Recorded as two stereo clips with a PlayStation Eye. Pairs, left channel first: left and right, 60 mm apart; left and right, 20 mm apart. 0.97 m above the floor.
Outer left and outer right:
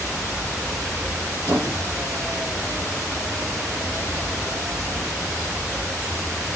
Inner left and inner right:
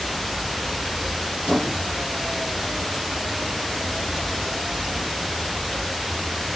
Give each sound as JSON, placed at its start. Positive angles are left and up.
{"t": 1.5, "sound": "a squeak", "side_deg": -55, "distance_m": 3.5}